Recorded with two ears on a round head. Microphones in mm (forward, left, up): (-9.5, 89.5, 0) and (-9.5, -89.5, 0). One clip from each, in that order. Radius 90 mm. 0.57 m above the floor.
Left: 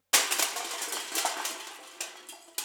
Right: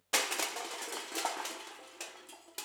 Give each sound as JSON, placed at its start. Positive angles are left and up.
{"t": 0.1, "sound": "crushing", "side_deg": 30, "distance_m": 0.5}